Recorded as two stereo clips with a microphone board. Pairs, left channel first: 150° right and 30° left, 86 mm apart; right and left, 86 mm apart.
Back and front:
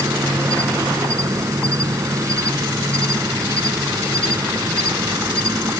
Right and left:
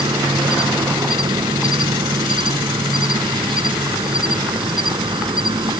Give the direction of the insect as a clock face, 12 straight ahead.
9 o'clock.